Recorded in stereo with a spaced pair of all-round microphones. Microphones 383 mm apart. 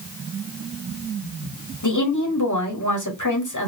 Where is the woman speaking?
50° left (ahead or behind), 1.9 m.